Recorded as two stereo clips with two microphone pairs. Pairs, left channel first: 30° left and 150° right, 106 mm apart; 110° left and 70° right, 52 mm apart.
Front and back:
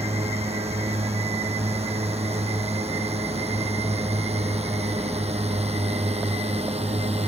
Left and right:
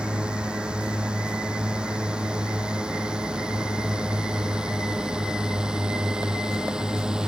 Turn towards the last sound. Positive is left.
turn(degrees=-145)